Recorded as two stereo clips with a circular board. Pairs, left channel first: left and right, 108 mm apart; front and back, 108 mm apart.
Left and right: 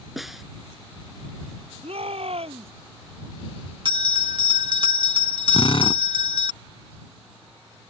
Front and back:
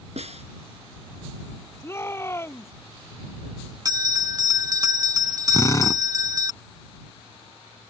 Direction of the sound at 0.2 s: Straight behind.